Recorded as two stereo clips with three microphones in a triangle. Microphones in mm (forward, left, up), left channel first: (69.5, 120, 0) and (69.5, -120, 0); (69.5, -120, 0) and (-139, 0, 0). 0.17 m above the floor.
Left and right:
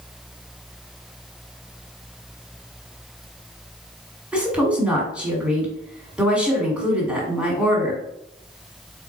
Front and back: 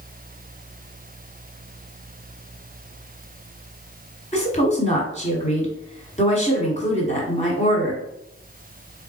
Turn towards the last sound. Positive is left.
turn(degrees=-10)